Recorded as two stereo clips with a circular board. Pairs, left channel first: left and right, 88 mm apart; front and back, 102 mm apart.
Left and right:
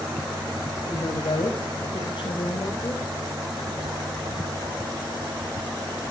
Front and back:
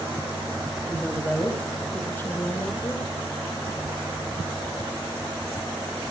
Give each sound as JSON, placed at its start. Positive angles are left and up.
{"t": 0.9, "sound": "a woman speaking", "azimuth_deg": 80, "distance_m": 4.5}